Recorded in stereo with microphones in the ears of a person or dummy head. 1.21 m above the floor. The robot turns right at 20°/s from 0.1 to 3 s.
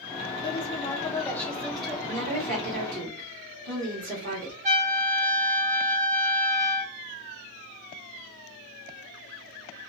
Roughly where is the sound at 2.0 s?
Right.